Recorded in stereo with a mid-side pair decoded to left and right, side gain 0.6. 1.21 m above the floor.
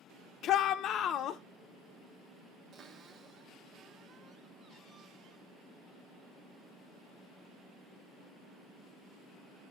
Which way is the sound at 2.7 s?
50° right.